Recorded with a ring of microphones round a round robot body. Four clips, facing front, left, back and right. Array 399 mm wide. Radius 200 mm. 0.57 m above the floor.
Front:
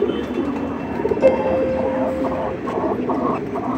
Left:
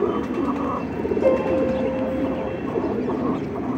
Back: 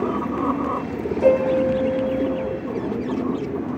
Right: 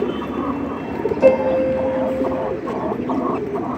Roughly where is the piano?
Ahead right.